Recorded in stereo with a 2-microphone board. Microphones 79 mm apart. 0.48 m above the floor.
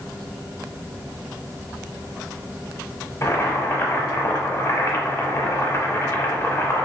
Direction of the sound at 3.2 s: 35° left (ahead or behind).